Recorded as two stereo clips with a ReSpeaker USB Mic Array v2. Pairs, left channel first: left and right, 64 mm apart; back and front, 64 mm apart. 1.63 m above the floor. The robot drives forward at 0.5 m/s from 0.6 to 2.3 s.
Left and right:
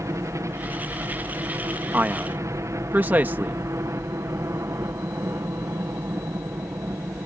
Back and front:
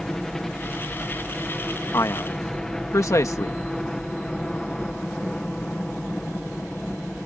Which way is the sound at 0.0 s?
100° right.